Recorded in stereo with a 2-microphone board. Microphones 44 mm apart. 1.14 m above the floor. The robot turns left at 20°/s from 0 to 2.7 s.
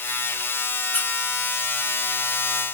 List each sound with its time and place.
0.9 s a squeak: 40° left (ahead or behind), 1.4 m; by 1.1 s 35° left (ahead or behind), 1.4 m